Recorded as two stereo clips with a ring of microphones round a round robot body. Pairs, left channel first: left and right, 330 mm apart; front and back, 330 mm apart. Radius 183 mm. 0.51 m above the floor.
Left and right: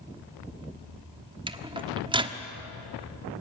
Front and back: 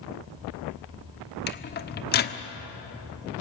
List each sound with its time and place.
1.5 s a microwave: 25° right, 1.1 m